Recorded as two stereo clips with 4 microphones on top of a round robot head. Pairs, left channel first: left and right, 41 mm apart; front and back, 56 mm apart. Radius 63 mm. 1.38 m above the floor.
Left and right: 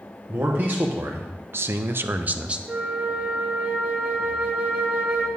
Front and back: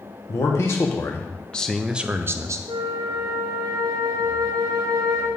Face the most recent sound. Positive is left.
turn(degrees=-140)